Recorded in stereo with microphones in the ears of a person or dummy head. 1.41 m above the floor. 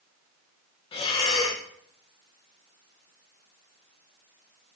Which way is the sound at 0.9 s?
25° left (ahead or behind).